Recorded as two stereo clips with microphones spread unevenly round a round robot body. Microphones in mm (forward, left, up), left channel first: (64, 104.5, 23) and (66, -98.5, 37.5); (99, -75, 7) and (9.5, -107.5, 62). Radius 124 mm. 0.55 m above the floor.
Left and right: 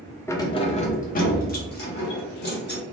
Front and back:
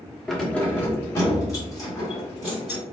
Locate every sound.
0.3 s keys jangling: 30° left, 0.5 m; by 2.8 s 60° left, 1.6 m